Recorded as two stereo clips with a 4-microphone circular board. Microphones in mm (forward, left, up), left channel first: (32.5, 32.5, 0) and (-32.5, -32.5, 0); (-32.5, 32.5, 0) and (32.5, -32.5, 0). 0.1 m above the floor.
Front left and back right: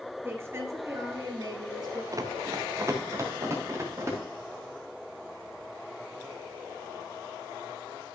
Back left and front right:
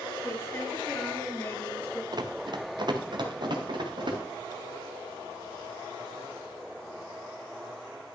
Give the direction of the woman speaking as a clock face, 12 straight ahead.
6 o'clock.